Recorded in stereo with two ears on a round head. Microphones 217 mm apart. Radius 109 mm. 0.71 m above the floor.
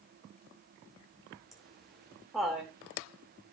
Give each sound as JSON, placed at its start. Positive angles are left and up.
{"t": 1.5, "sound": "laughter", "side_deg": 0, "distance_m": 2.5}